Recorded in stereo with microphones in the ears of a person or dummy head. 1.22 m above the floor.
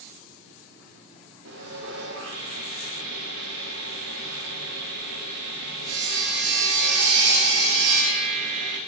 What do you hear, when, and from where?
1.4 s sawing: 80° right, 3 m